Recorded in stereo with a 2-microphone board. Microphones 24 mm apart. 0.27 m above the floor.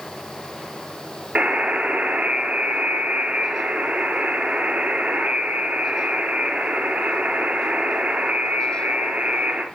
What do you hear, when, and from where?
1.4 s a buzzer: 75° right (ahead or behind), 3 m